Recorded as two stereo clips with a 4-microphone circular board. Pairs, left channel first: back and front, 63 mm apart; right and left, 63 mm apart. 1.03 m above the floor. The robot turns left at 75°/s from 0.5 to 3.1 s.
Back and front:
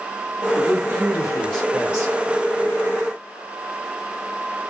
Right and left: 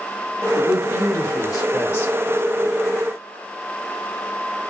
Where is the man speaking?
30° right, 1.7 m; by 2.1 s 145° right, 1.7 m.